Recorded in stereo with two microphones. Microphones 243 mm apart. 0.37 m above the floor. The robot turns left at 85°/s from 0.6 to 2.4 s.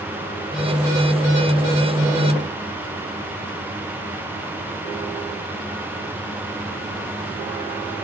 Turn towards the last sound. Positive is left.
No sound to turn to.